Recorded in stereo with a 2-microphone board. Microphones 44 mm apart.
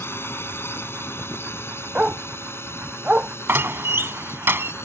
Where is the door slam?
65° right (ahead or behind).